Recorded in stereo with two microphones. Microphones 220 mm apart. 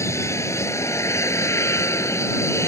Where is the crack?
No crack in this recording.